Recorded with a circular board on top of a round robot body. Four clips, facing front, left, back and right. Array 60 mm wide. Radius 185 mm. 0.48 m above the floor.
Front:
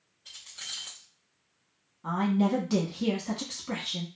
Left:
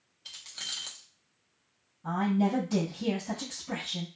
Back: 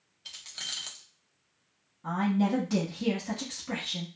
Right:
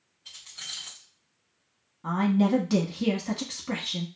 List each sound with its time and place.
0.2 s keys jangling: 145° left, 1.1 m
2.0 s a woman speaking: 75° right, 1.3 m